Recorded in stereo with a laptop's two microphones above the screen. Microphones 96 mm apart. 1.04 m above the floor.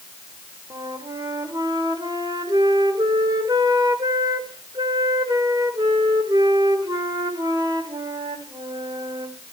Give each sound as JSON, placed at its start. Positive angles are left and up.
{"t": 0.7, "sound": "a flute", "side_deg": -45, "distance_m": 2.5}